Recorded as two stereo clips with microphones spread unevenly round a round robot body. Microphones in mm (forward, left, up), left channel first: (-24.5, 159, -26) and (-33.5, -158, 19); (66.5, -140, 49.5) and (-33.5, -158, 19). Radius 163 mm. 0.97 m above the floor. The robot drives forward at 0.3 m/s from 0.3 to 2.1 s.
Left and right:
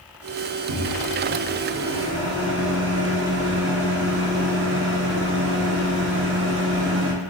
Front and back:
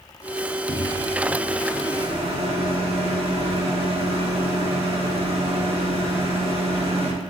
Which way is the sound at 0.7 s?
130° right.